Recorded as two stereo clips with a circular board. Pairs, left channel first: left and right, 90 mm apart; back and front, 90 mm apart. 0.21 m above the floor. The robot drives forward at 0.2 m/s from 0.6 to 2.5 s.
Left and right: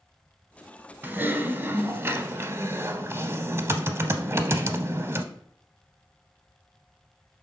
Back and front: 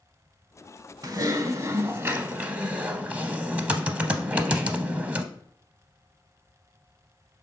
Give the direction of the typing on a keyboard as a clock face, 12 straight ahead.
1 o'clock.